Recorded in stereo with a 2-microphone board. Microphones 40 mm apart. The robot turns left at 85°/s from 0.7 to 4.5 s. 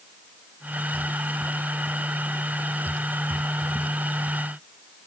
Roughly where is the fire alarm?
I don't hear a fire alarm.